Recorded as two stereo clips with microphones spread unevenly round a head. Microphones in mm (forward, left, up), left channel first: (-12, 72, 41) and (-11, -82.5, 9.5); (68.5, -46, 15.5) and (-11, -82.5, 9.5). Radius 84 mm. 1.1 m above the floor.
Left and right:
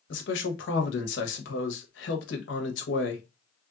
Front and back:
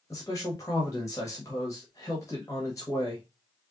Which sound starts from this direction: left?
A man speaking, at 0.1 s.